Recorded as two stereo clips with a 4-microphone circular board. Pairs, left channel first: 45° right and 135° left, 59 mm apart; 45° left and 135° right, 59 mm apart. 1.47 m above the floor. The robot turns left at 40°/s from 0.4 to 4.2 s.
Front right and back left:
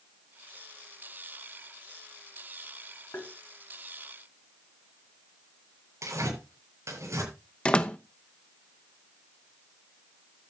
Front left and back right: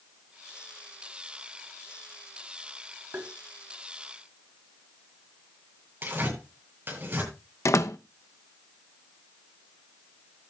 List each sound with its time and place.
3.1 s tapping: 90° right, 3 m; by 3.3 s 95° right, 3 m
6.0 s tearing paper: 165° left, 9 m
7.7 s a door slam: 25° left, 0.9 m